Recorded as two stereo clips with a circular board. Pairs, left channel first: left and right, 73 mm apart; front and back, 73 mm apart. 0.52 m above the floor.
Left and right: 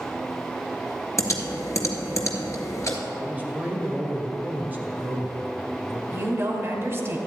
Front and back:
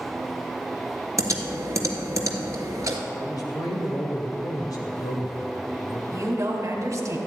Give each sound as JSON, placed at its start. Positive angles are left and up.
{"t": 1.2, "sound": "typing on a keyboard", "azimuth_deg": 135, "distance_m": 1.6}
{"t": 3.2, "sound": "a man speaking", "azimuth_deg": -25, "distance_m": 2.0}
{"t": 6.1, "sound": "a woman speaking", "azimuth_deg": -145, "distance_m": 1.7}